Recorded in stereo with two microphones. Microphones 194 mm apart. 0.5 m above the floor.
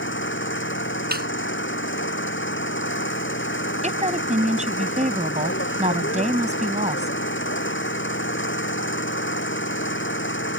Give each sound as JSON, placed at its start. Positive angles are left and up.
{"t": 0.0, "sound": "an engine running", "side_deg": 80}
{"t": 1.1, "sound": "a snare drum", "side_deg": -55}
{"t": 3.8, "sound": "a woman speaking", "side_deg": -40}